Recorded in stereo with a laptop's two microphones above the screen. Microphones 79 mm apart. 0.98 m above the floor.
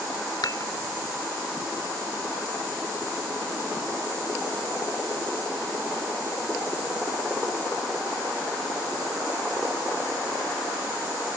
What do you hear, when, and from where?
0.4 s dishes clattering: 60° left (ahead or behind)